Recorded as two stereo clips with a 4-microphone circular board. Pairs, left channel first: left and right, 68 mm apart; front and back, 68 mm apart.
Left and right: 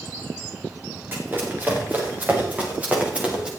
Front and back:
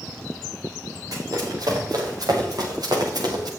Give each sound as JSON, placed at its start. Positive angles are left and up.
{"t": 1.1, "sound": "running footsteps", "azimuth_deg": -150, "distance_m": 7.5}